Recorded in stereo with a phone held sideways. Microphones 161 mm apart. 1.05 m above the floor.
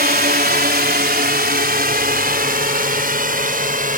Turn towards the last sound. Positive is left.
turn(degrees=-60)  # may be behind; listen again after turning